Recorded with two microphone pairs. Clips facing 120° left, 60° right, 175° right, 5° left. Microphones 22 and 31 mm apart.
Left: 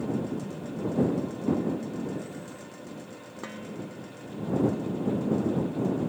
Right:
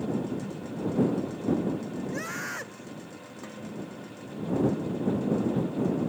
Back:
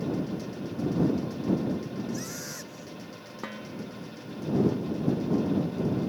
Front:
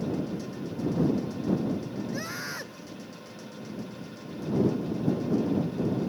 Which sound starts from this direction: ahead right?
A scream, at 2.1 s.